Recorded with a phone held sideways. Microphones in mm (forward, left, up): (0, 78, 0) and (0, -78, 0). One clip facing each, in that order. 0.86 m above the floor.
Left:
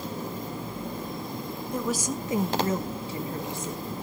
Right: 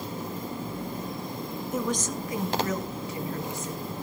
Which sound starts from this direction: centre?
A woman speaking, at 1.7 s.